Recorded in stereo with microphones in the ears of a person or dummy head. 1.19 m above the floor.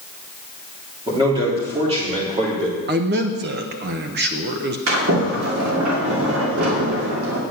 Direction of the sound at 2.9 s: 55° right (ahead or behind).